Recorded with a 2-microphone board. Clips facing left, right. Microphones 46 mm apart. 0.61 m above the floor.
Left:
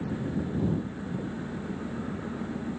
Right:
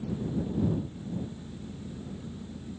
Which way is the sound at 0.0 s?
60° left (ahead or behind).